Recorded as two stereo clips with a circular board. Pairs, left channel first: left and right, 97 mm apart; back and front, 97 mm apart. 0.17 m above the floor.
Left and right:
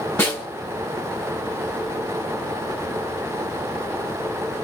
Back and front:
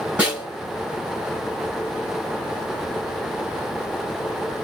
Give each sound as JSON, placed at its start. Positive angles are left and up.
{"t": 0.2, "sound": "a snare drum", "azimuth_deg": 55, "distance_m": 1.7}